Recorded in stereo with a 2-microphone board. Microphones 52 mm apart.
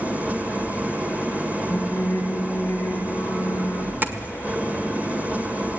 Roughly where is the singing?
Left.